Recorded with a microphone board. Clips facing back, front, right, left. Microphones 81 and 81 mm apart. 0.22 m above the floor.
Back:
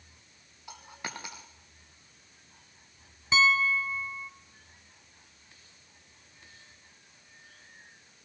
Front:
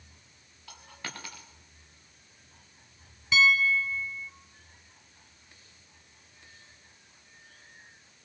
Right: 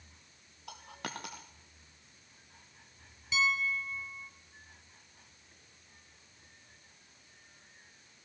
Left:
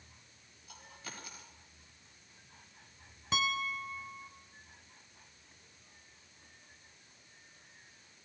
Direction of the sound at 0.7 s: 110° right.